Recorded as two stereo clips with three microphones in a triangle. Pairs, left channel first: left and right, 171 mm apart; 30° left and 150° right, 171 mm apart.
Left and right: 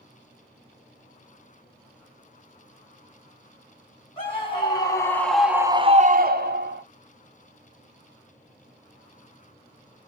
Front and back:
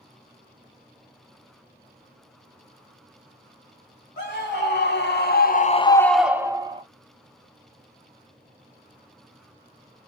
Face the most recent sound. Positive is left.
turn(degrees=-90)